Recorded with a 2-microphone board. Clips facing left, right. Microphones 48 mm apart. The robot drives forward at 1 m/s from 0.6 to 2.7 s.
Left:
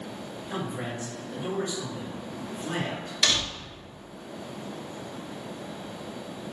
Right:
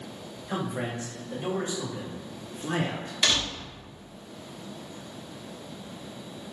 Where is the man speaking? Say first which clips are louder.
Right 2 dB; 60° right (ahead or behind), 1.3 m; by 3.1 s 25° right (ahead or behind), 3 m.